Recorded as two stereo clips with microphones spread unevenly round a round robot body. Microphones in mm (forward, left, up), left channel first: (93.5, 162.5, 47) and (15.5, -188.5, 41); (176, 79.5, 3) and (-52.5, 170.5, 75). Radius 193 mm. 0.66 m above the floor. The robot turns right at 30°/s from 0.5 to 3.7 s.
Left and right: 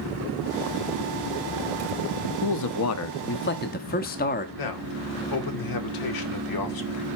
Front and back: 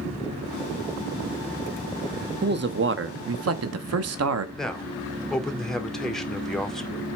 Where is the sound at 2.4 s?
100° left, 1.1 m; by 4.5 s 140° left, 1.1 m.